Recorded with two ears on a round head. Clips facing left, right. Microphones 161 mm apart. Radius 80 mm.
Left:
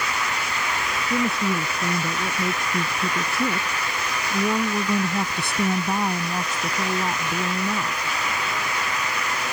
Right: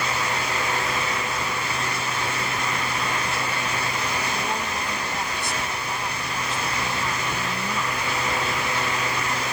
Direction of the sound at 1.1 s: 55° left (ahead or behind).